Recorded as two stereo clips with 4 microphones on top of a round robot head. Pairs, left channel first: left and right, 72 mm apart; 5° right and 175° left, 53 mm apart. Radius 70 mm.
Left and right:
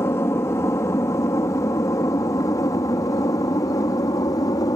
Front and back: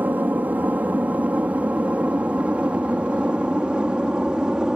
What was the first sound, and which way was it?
An aircraft, 130° left.